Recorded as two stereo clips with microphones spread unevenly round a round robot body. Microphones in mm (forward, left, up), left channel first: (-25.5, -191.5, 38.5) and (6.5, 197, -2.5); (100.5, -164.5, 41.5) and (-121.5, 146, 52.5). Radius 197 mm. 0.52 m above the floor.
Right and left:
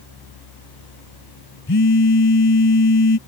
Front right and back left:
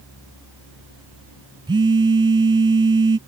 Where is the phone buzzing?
155° right.